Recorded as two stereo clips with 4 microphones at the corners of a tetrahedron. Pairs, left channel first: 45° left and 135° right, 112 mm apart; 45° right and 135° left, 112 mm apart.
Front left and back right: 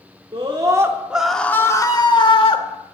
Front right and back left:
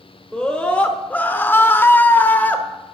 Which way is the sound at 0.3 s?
125° right.